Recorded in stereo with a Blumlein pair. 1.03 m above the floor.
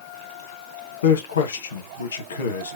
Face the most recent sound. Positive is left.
turn(degrees=65)